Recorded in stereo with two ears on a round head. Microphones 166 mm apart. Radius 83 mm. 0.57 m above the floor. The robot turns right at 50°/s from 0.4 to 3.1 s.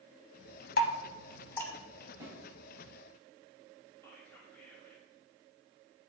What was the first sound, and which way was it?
Dripping, 55° left (ahead or behind).